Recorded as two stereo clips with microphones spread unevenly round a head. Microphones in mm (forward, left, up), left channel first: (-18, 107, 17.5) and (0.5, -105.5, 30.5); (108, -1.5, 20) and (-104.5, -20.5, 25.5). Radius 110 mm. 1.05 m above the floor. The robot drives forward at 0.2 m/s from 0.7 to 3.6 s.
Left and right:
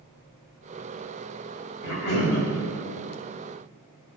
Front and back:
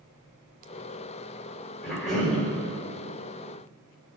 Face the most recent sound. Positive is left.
turn(degrees=95)